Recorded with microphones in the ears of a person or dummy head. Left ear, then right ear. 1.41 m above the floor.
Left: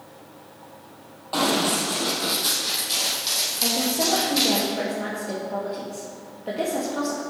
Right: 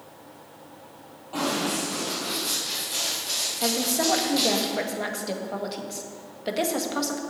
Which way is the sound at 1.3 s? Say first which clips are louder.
Left 5 dB; 45° left (ahead or behind).